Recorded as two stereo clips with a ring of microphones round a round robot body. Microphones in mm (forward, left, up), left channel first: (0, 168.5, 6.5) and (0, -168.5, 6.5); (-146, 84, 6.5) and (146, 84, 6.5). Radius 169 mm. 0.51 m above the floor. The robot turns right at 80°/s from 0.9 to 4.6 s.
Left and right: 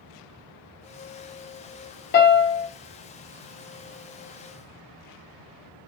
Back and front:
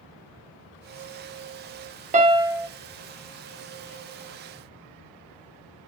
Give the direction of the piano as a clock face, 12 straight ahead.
10 o'clock.